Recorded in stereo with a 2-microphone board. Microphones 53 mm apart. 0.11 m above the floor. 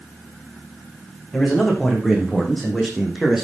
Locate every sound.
1.3 s a man speaking: 10° left (ahead or behind), 6.5 m; by 3.4 s centre (ahead or behind), 4.5 m